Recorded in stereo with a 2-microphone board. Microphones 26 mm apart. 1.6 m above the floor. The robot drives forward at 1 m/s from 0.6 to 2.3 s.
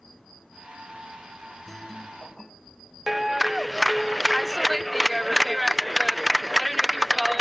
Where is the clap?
10° right (ahead or behind).